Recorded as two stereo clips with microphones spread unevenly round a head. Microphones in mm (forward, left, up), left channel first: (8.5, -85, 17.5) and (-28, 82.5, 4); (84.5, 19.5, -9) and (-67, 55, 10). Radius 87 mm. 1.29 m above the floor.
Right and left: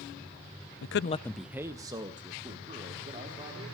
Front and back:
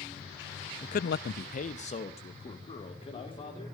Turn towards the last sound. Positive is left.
turn(degrees=45)